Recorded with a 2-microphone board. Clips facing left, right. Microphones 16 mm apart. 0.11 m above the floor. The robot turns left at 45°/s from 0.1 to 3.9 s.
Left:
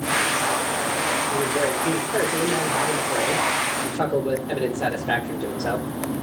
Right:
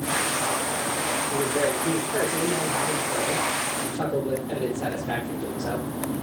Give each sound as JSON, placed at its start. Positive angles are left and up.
{"t": 1.3, "sound": "a man speaking", "azimuth_deg": -160, "distance_m": 3.0}